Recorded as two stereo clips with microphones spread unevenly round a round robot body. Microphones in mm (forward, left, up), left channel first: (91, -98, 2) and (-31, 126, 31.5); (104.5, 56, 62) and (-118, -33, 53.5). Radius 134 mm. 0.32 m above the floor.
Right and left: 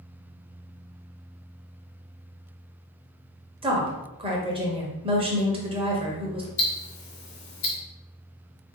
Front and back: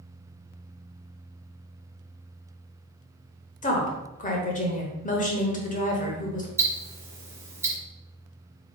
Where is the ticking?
80° right, 1.5 m.